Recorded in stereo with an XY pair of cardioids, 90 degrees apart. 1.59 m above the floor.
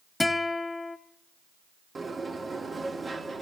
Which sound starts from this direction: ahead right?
A sliding door, at 1.9 s.